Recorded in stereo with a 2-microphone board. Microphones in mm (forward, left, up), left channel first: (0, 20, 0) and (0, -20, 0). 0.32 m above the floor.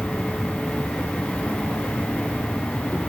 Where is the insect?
30° left (ahead or behind).